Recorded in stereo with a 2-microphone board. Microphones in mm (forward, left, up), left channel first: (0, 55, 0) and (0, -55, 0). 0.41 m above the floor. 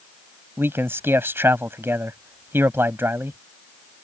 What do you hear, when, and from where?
0.6 s a man speaking: 20° right (ahead or behind)